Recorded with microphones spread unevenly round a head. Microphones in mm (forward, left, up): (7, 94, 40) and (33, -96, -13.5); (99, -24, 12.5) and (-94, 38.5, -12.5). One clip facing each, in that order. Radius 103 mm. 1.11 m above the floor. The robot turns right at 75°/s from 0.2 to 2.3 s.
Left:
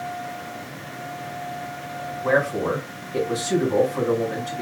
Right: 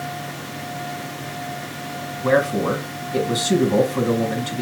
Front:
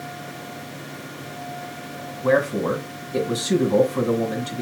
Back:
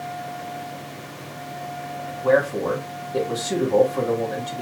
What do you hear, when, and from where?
2.2 s a man speaking: 70° right, 1.3 m; by 4.6 s 65° right, 1.3 m